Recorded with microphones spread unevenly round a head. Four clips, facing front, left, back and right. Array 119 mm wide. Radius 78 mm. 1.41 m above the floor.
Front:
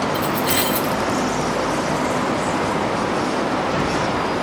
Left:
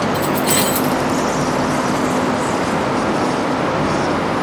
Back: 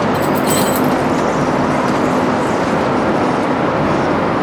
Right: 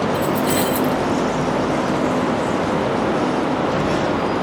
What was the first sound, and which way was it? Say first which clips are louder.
Keys jangling: left 1 dB, back 6 dB; 120° right.